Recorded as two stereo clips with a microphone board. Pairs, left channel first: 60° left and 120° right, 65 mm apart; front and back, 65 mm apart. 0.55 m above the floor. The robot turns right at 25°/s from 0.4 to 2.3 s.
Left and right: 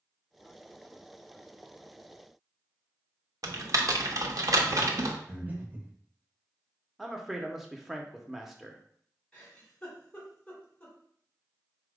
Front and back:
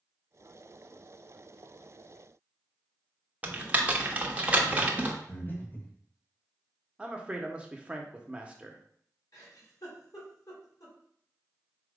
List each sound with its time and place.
3.4 s typing on a keyboard: 115° right, 0.7 m
5.3 s breathing: 60° right, 1.0 m
7.0 s a man speaking: 165° left, 0.7 m
9.3 s a giggle: 5° right, 2 m